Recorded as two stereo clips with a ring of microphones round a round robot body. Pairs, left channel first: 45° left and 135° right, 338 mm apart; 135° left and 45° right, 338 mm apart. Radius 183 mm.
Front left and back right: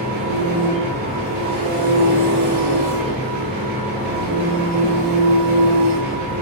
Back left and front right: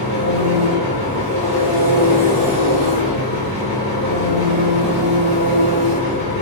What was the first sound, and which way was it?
An engine running, 70° right.